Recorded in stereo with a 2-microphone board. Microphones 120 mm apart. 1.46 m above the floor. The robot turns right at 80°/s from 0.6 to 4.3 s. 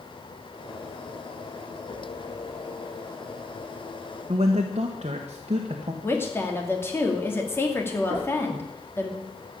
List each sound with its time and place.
4.3 s a man speaking: 55° right (ahead or behind), 1.3 m
6.0 s a woman speaking: 20° left (ahead or behind), 2.5 m
8.1 s knocking: 20° right (ahead or behind), 9 m